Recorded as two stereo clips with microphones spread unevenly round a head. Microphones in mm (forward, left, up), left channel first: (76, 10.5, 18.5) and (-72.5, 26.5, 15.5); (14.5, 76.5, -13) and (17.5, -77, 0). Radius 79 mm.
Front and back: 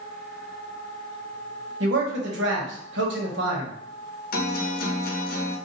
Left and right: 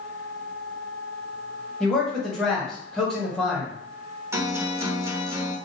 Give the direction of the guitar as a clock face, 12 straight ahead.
1 o'clock.